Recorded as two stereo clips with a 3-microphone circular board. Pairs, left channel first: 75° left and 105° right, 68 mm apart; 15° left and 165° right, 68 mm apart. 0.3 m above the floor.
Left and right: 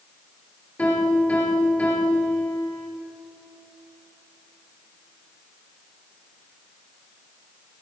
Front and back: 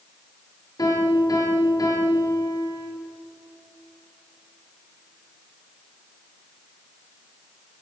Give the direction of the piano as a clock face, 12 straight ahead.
12 o'clock.